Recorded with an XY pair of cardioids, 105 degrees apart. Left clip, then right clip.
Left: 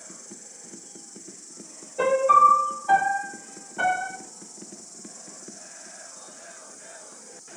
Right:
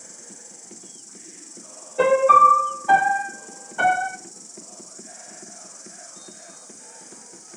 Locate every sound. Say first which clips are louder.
0.0 s an insect: right 1 dB; 50° right, 3.5 m
2.0 s a piano: right 3 dB; 30° right, 0.6 m